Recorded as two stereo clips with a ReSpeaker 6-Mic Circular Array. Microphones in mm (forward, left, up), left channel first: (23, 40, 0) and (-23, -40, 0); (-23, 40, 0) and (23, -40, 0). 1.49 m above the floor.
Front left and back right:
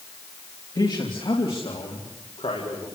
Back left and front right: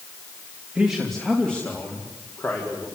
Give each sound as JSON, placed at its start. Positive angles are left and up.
{"t": 0.8, "sound": "a man speaking", "azimuth_deg": 20, "distance_m": 2.5}